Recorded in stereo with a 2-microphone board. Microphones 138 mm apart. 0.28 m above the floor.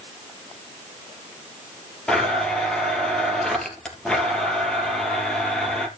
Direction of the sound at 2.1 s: 5° left (ahead or behind).